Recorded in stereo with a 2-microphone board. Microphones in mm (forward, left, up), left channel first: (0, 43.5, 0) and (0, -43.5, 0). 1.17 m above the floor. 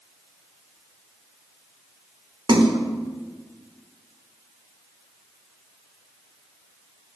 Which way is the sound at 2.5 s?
60° right (ahead or behind).